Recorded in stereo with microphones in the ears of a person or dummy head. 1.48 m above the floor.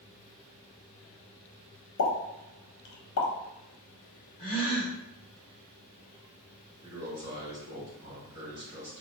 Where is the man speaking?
15° right (ahead or behind), 1.8 m.